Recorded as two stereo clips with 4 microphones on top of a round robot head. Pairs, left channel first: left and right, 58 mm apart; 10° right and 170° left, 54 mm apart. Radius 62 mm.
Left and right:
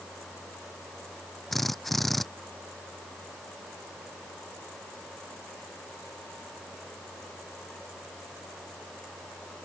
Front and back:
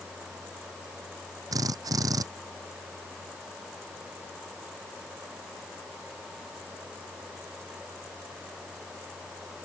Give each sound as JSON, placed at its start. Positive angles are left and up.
{"t": 1.5, "sound": "a drill", "azimuth_deg": 175}